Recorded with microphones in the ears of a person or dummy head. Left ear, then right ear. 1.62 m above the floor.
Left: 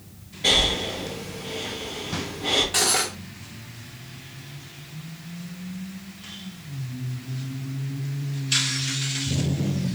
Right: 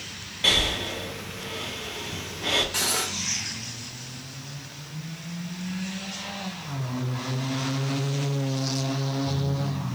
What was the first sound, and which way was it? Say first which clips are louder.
Breathing: left 2 dB; 40° right (ahead or behind).